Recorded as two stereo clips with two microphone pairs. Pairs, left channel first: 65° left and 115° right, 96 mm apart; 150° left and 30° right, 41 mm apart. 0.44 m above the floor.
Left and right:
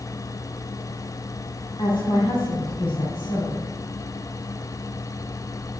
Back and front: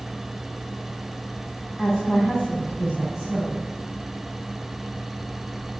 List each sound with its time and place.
1.8 s a woman speaking: 65° left, 3 m; by 3.6 s 40° left, 3 m